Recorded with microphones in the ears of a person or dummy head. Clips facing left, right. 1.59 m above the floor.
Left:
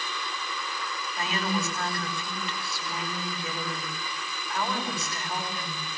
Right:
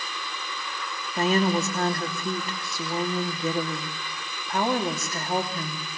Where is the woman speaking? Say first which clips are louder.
Right 8 dB; 45° right (ahead or behind), 3 m.